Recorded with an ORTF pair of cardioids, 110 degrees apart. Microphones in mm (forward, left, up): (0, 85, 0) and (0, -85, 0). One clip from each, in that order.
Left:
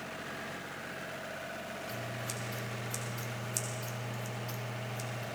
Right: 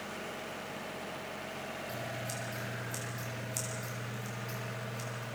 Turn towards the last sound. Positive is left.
turn(degrees=25)